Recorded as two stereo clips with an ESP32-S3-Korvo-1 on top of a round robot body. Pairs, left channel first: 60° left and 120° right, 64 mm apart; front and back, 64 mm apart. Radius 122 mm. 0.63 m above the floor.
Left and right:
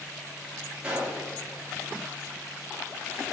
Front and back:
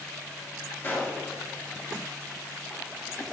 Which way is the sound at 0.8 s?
55° right.